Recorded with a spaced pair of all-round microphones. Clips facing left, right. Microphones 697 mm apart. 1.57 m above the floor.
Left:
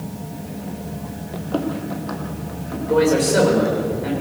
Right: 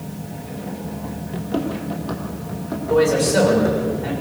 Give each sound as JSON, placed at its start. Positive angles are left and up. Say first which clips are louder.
{"t": 1.3, "sound": "running footsteps", "louder": "even", "side_deg": -45, "distance_m": 2.0}
{"t": 2.9, "sound": "a man speaking", "louder": "even", "side_deg": -25, "distance_m": 7.0}